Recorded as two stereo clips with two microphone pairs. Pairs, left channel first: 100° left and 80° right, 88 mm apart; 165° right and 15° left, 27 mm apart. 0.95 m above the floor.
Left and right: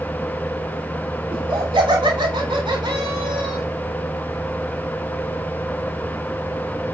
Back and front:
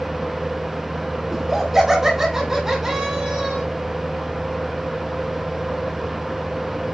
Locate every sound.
1.3 s laughter: 65° right, 3.5 m; by 3.6 s 60° right, 4.5 m